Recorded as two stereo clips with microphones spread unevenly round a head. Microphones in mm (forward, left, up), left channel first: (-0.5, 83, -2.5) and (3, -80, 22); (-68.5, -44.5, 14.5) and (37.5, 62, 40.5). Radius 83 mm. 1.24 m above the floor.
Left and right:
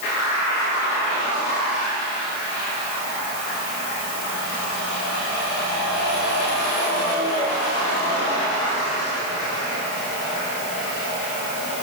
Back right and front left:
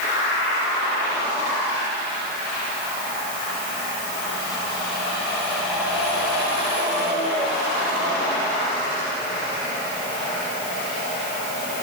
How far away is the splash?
I don't hear a splash.